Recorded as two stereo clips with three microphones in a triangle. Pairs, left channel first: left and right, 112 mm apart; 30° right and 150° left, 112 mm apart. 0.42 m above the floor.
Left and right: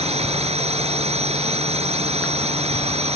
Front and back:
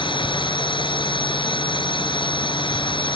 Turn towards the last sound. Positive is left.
turn(degrees=-70)